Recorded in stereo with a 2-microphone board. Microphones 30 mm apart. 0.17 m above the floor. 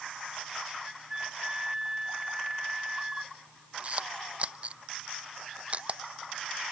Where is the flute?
20° right (ahead or behind).